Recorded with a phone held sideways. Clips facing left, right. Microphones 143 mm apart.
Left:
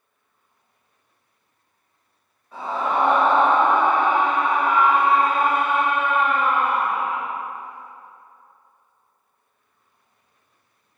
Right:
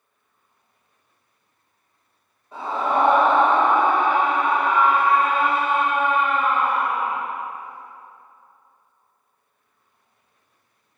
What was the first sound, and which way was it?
A scream, 25° right (ahead or behind).